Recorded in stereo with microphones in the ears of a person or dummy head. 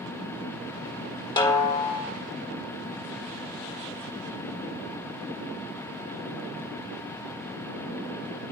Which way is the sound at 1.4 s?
20° left (ahead or behind).